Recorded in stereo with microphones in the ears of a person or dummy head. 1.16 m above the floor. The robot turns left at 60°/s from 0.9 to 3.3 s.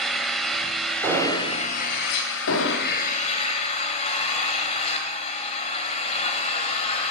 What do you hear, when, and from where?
0.0 s an engine running: straight behind, 1.7 m; by 7.1 s 40° left, 1.7 m
1.0 s an explosion: 10° right (ahead or behind), 4 m; by 1.5 s 20° left (ahead or behind), 4 m
2.5 s an explosion: 70° left (ahead or behind), 1.2 m; by 3.0 s 50° left (ahead or behind), 1.2 m